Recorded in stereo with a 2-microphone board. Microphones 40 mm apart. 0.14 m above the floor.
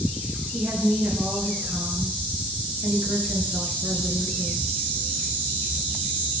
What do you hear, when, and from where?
0.5 s a woman speaking: 60° right (ahead or behind), 2 m